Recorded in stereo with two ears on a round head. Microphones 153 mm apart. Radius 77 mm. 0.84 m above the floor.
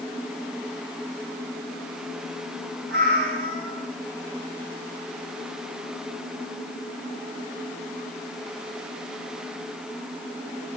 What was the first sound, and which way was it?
A cat meowing, 55° right (ahead or behind).